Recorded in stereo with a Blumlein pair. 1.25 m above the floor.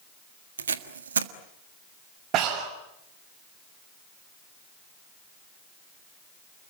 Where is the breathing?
35° right, 4.5 m.